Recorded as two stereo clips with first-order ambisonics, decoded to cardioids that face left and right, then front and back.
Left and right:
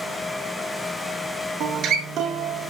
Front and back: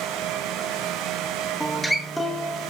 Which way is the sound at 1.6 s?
90° right.